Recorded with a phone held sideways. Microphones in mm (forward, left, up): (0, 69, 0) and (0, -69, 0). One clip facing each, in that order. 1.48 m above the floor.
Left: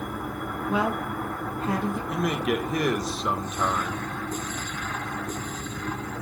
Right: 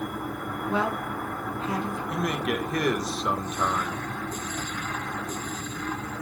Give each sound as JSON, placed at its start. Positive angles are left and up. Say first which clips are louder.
{"t": 0.7, "sound": "a woman speaking", "louder": "left 1 dB", "side_deg": 10, "distance_m": 1.9}
{"t": 2.1, "sound": "a man speaking", "louder": "left 1 dB", "side_deg": 5, "distance_m": 1.1}